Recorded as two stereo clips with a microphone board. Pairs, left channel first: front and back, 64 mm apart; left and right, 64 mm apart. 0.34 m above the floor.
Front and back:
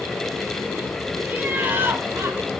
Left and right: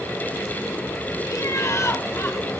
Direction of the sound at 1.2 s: 110° left.